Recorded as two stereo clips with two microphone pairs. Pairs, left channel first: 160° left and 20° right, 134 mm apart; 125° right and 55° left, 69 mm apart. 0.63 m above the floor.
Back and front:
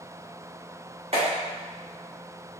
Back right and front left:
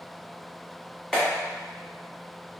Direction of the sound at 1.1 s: 50° right.